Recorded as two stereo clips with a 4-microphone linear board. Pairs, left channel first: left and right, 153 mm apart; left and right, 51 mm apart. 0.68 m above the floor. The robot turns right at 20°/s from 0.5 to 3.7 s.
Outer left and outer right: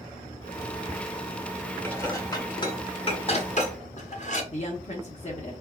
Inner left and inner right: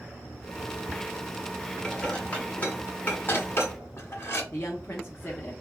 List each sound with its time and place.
1.8 s dishes clattering: 15° left (ahead or behind), 1.1 m; by 4.4 s 50° left (ahead or behind), 1.1 m
4.5 s a woman speaking: 45° left (ahead or behind), 0.9 m